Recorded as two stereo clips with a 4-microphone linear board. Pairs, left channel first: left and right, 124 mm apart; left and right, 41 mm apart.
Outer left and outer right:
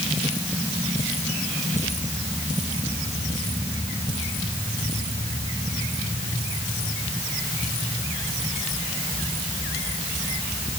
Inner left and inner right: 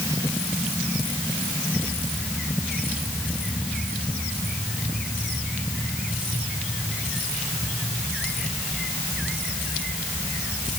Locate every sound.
Only background noise.